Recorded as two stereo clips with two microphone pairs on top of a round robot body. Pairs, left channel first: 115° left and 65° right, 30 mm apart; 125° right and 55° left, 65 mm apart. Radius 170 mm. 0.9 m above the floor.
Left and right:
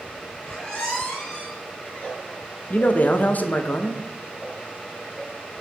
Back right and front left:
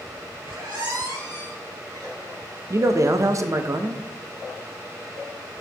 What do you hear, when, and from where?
0.4 s a squeak: 55° left, 3 m
2.7 s a man speaking: 85° left, 0.9 m